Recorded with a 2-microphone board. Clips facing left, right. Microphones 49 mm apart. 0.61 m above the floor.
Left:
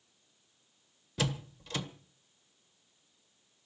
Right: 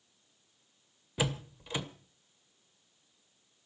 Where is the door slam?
15° right (ahead or behind), 1.4 m.